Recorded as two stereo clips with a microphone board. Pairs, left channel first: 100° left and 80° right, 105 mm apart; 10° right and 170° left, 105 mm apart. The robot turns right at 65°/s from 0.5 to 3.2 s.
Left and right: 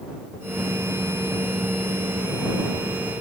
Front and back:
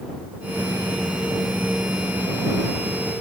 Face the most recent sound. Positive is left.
No sound to turn to.